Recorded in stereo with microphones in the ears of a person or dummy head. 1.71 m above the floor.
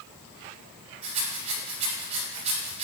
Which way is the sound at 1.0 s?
40° right (ahead or behind).